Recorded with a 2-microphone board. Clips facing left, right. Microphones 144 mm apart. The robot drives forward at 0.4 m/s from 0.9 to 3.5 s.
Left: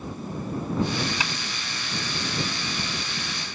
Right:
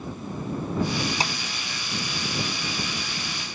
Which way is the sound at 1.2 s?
35° right (ahead or behind).